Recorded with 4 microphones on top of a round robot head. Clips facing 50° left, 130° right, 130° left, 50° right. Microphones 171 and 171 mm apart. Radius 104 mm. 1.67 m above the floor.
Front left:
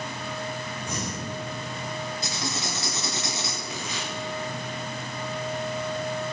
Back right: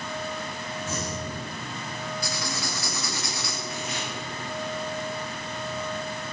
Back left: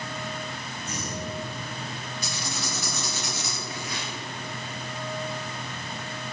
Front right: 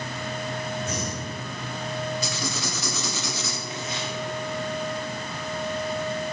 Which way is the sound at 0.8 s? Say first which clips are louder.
Back right 2 dB, front right 3 dB; 25° right.